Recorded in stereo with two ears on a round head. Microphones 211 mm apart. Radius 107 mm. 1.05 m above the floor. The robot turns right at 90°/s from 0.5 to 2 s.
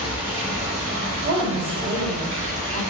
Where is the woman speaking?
90° right, 1.5 m; by 2.8 s 20° right, 1.5 m.